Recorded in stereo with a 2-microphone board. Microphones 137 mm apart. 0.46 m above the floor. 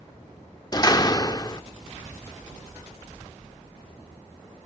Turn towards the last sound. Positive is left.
turn(degrees=30)  # may be behind; listen again after turning